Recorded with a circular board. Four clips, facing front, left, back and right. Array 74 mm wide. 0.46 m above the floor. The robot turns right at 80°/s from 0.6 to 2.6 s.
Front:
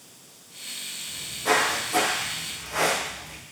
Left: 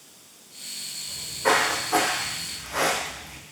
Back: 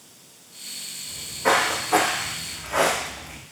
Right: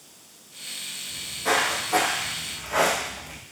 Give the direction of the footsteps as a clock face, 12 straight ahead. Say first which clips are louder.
Left 3 dB, back 3 dB; 8 o'clock.